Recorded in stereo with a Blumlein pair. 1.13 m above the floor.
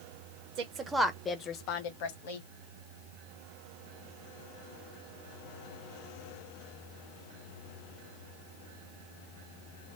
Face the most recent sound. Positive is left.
turn(degrees=60)